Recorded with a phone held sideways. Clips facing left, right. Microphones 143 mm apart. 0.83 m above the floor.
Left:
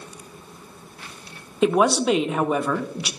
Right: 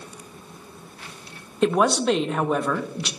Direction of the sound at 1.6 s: 5° left (ahead or behind).